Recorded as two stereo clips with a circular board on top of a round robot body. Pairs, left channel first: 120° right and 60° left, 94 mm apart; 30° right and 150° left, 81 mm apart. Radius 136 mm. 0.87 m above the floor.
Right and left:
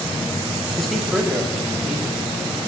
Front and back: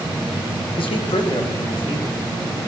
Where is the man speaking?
35° right, 1.4 m; by 2.2 s 25° right, 2.5 m.